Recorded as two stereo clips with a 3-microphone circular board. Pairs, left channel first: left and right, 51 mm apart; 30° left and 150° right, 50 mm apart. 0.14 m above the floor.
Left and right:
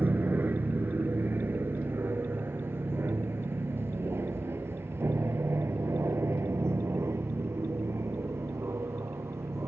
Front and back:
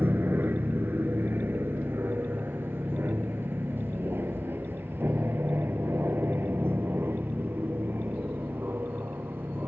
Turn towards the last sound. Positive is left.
turn(degrees=-110)